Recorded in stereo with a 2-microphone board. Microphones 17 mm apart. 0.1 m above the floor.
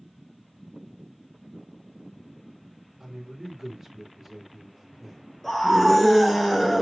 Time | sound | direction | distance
3.0 | a man speaking | 25° right (ahead or behind) | 1.8 m
5.4 | a scream | 15° left (ahead or behind) | 1.2 m